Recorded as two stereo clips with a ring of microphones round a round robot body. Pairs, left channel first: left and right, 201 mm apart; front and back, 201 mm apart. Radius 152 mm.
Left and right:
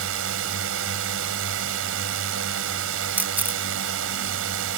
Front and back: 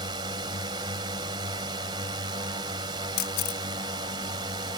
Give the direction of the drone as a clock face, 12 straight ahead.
4 o'clock.